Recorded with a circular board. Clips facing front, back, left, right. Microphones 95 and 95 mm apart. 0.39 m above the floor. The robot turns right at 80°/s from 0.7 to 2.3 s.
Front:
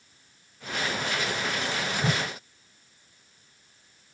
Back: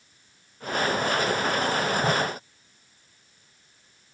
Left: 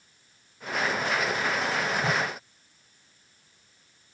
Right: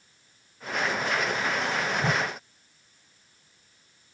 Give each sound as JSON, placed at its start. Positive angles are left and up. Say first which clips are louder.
{"t": 2.0, "sound": "a whoosh", "louder": "back 2 dB, right 1 dB", "azimuth_deg": -45, "distance_m": 0.6}